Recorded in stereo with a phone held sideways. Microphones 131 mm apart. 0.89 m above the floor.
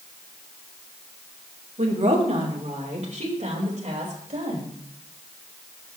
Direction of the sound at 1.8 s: 60° right (ahead or behind).